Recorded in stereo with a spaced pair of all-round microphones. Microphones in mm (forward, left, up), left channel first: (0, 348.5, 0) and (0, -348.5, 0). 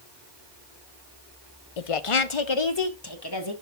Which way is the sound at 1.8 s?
60° left (ahead or behind).